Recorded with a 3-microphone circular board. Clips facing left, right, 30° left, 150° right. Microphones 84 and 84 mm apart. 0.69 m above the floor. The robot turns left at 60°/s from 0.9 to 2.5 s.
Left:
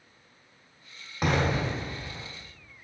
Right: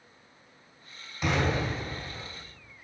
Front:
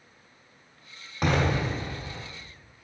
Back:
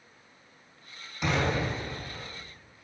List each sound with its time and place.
1.2 s an explosion: 65° left, 1.2 m; by 2.2 s straight ahead, 1.2 m